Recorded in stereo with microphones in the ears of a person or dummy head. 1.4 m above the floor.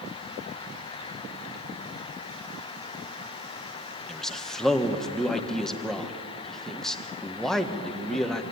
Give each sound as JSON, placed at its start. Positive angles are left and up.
{"t": 4.1, "sound": "a man speaking", "side_deg": 5, "distance_m": 1.5}